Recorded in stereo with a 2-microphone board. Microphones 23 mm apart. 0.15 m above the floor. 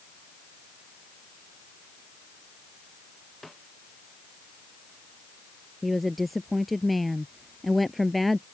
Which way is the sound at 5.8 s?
Centre (ahead or behind).